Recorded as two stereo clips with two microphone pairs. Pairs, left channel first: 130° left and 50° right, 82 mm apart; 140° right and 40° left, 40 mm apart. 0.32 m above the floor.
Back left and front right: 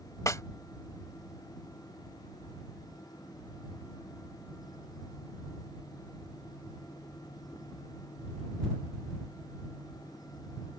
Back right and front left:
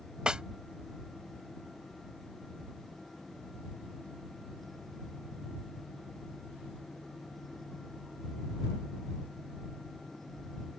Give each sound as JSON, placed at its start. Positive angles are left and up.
{"t": 0.3, "sound": "a snare drum", "azimuth_deg": 100}